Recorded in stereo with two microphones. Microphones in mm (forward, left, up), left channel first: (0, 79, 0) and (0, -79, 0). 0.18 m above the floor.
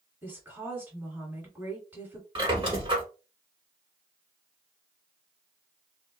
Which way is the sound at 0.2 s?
15° right (ahead or behind).